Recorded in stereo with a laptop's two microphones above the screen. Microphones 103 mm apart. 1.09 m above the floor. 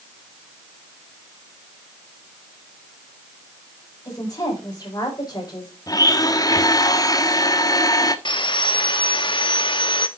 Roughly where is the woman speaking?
Left.